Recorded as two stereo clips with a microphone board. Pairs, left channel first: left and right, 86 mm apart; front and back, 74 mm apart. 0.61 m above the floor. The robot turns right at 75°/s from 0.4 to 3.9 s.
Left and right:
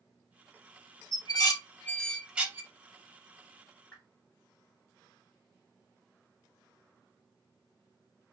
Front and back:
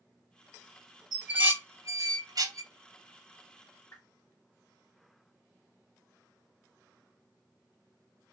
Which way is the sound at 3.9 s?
25° left.